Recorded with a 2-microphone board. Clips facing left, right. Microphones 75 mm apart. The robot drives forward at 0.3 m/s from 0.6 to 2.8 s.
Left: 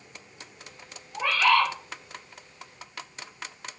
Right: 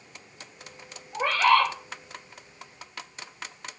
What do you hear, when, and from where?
1.1 s a bird: 45° right (ahead or behind), 0.9 m; by 1.7 s 50° right (ahead or behind), 0.8 m